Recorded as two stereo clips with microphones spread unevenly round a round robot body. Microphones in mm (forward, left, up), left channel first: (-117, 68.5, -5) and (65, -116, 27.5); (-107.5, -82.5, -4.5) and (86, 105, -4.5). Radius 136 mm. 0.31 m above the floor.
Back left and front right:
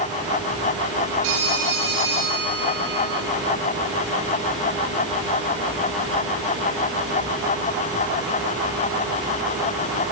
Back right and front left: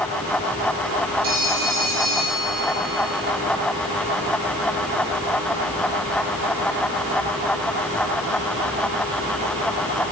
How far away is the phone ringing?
About 7 m.